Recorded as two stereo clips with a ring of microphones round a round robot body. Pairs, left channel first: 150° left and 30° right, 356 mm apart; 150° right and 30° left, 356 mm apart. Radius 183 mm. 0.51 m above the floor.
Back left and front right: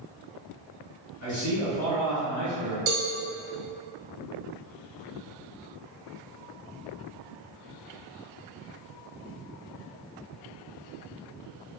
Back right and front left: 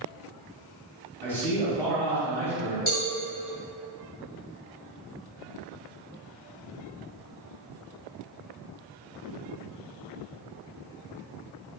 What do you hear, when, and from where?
1.2 s a man speaking: 130° left, 1.8 m
2.9 s a cowbell: 85° right, 0.8 m